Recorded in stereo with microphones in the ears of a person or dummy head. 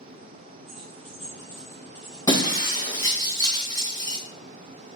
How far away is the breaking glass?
About 2.5 m.